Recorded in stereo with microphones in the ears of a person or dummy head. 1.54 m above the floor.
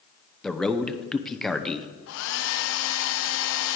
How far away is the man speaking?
About 0.7 m.